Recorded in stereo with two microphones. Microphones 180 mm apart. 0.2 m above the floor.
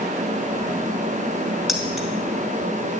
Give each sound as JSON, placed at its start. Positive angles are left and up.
{"t": 1.7, "sound": "keys jangling", "side_deg": 0, "distance_m": 2.0}